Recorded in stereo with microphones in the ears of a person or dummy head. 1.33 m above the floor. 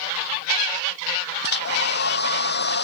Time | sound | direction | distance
1.4 | a hair dryer | 50° left (ahead or behind) | ?